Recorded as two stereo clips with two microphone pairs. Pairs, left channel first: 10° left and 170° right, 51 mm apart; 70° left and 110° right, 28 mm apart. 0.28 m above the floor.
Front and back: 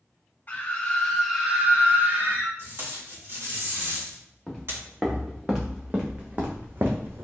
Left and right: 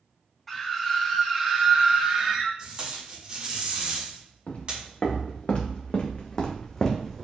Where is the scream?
10° right, 1.2 m; by 2.5 s 160° right, 1.6 m.